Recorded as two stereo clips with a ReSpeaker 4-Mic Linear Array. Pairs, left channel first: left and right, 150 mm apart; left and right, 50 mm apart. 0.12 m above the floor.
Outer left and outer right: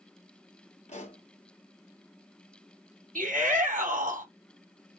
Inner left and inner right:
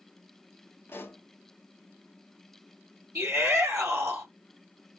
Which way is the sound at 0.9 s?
45° left (ahead or behind).